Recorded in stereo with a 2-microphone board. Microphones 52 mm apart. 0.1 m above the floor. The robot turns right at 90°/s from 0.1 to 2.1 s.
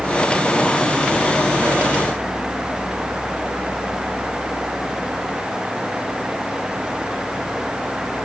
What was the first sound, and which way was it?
Only background noise.